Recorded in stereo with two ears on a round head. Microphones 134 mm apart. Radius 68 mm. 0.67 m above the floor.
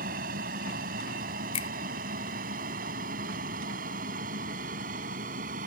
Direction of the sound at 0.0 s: 65° right (ahead or behind).